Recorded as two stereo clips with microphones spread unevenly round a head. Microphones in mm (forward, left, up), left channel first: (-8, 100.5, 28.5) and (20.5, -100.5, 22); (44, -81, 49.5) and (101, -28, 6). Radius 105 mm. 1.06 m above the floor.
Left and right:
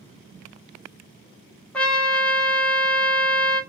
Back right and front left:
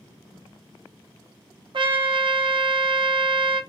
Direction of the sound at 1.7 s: 15° left.